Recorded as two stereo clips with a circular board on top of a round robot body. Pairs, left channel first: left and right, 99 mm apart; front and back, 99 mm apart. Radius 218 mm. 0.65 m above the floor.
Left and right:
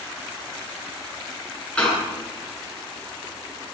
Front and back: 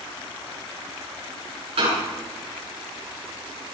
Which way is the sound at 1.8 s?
170° left.